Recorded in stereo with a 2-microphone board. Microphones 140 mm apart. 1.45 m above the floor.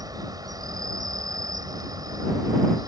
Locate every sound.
0.0 s an insect: 25° right (ahead or behind)